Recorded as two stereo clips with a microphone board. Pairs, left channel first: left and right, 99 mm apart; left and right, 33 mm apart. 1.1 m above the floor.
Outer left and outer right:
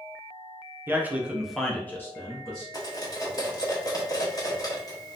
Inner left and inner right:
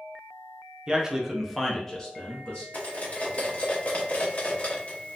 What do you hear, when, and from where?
0.9 s a man speaking: 20° right (ahead or behind), 0.7 m; by 2.6 s 35° left (ahead or behind), 0.9 m
2.7 s cutlery clinking: 40° left (ahead or behind), 0.8 m